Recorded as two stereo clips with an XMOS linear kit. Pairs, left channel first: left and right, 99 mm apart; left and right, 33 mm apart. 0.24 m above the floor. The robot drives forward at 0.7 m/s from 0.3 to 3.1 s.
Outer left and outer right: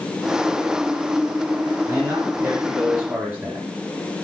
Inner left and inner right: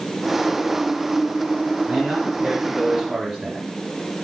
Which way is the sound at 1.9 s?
35° right (ahead or behind).